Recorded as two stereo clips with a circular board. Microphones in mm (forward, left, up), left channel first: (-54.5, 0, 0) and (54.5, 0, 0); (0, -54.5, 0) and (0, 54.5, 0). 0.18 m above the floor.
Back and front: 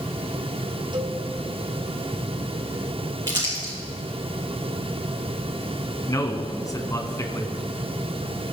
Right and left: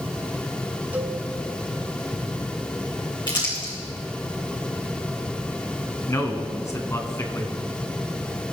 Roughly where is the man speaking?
Behind right.